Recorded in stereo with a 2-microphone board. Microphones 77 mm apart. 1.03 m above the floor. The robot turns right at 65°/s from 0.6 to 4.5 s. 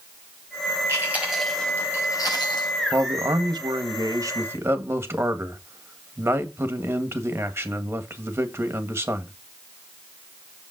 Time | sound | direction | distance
0.9 | chewing | 35° right | 4 m
2.9 | a man speaking | 140° right | 1.6 m